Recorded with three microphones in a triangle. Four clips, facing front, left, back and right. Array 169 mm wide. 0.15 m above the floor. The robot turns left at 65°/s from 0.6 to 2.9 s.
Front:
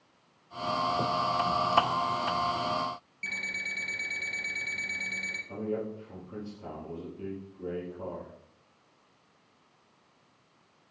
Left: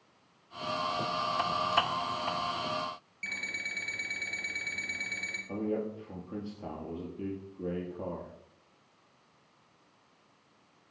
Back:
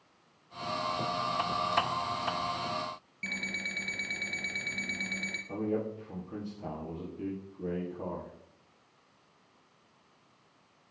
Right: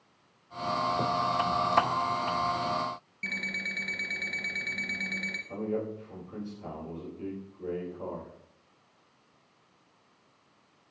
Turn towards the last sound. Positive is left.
turn(degrees=115)